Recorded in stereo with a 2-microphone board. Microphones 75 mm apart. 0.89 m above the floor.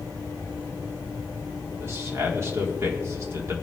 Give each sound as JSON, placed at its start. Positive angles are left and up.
{"t": 1.8, "sound": "a man speaking", "side_deg": -40, "distance_m": 1.8}